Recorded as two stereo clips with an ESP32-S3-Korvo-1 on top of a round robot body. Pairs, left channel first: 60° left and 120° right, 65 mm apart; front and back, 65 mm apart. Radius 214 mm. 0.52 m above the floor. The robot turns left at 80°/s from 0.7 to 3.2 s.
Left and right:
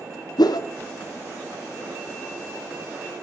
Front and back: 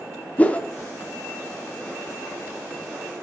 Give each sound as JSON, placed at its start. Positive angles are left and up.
{"t": 0.4, "sound": "a whoosh", "azimuth_deg": 70, "distance_m": 0.6}